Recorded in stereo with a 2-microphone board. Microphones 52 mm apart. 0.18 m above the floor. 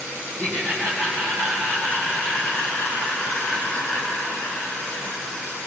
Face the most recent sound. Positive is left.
turn(degrees=45)  # may be behind; listen again after turning